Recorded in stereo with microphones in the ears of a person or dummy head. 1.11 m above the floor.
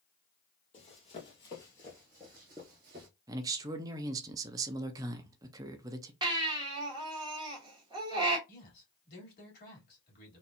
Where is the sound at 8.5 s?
50° left (ahead or behind), 2 m.